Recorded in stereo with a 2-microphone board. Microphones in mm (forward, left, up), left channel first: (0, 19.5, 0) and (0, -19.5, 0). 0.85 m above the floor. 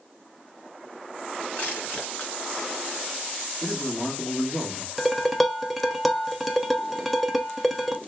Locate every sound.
1.6 s crushing: 40° left (ahead or behind), 3.5 m
3.6 s a man speaking: 20° left (ahead or behind), 1.5 m
5.0 s dishes clattering: centre (ahead or behind), 0.5 m